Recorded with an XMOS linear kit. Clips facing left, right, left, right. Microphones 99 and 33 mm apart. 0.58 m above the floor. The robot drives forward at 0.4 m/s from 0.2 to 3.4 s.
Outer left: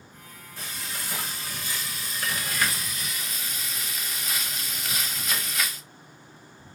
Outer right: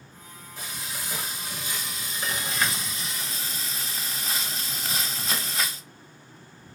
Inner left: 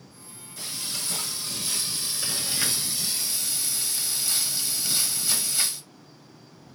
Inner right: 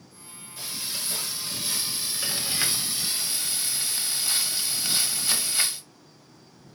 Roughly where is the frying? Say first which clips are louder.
Even, even; centre.